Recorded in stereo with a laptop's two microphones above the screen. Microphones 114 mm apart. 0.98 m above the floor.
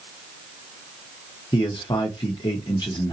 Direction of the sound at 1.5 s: 40° left (ahead or behind).